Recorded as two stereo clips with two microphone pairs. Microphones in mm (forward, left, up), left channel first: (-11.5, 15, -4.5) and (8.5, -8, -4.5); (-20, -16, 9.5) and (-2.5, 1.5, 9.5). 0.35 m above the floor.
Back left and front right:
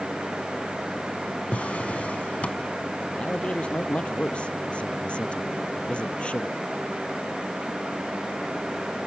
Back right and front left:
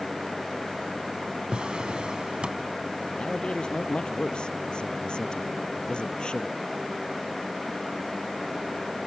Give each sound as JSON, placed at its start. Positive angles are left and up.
{"t": 1.5, "sound": "a drawer", "azimuth_deg": 90}
{"t": 3.1, "sound": "a man speaking", "azimuth_deg": 180}